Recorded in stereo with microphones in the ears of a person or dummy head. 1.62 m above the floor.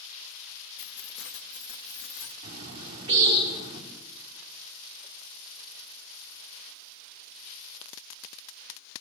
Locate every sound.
0.8 s keys jangling: 60° left (ahead or behind), 1.3 m; by 2.3 s 80° left, 2.5 m
2.4 s a bird: 30° right (ahead or behind), 4 m